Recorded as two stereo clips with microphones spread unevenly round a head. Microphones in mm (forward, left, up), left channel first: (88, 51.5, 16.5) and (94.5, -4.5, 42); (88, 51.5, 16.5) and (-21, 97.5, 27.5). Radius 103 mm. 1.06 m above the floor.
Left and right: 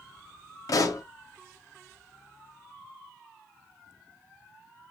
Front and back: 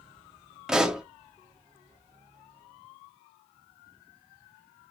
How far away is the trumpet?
I don't hear a trumpet.